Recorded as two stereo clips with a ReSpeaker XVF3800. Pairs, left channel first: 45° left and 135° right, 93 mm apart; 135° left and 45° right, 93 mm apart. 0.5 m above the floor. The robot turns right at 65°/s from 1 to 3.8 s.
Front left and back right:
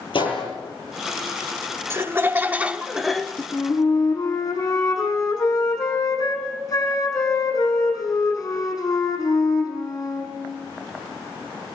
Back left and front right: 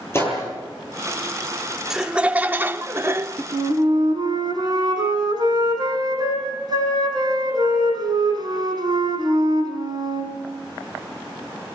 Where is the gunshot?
70° left, 8 m.